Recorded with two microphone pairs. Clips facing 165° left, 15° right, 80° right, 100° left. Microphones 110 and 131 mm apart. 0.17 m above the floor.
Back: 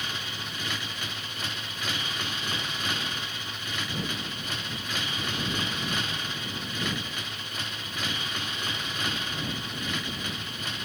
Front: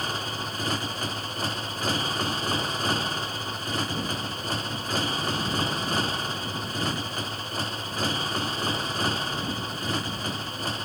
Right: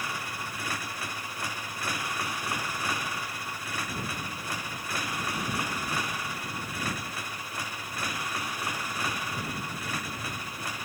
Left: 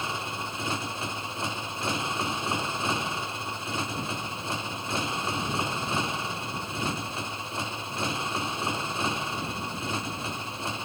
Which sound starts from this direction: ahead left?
A motorcycle, at 0.0 s.